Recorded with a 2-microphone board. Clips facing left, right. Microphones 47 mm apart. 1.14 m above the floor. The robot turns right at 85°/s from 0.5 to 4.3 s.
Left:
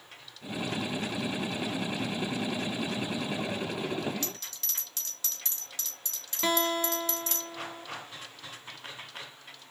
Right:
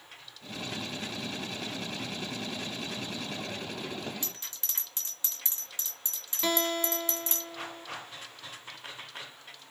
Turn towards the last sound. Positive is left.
turn(degrees=10)  # may be behind; listen again after turning